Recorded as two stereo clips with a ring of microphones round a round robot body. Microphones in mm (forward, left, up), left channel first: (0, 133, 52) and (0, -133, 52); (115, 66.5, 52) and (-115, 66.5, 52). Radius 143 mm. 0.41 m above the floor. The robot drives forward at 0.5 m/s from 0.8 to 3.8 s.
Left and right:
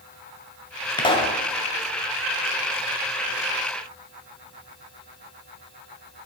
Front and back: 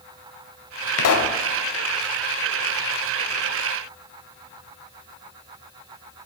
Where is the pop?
15° left, 0.9 m; by 1.4 s 20° left, 0.7 m.